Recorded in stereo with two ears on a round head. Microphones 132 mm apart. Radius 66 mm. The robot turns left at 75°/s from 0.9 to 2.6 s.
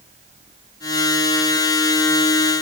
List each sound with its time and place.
Only background noise.